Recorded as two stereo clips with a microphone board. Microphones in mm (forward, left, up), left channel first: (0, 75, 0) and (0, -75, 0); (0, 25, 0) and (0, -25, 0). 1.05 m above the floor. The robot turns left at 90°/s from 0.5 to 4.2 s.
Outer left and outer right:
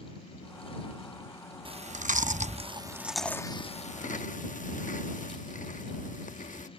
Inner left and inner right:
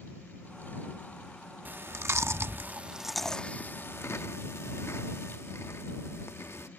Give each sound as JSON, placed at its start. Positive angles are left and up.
{"t": 1.6, "sound": "chewing", "side_deg": -35}